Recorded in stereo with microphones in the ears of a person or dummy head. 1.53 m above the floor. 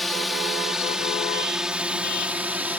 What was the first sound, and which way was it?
A drone, 5° left (ahead or behind).